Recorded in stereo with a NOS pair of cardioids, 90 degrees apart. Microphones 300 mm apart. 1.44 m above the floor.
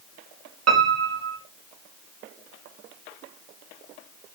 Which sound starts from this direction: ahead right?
A piano, at 0.7 s.